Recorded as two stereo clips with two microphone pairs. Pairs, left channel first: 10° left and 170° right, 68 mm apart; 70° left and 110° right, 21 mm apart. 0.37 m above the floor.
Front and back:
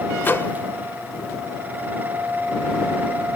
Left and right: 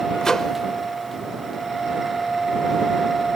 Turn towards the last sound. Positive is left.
turn(degrees=25)